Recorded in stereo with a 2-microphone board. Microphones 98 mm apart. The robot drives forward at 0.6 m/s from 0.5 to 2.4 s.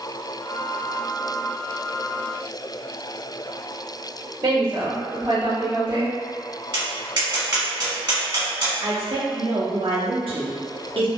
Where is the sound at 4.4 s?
50° right (ahead or behind), 1.5 m.